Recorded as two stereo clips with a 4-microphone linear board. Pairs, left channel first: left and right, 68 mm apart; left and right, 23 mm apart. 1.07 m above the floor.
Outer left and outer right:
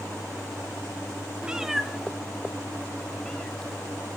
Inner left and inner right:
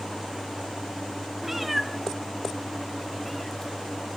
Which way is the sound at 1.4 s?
15° right (ahead or behind).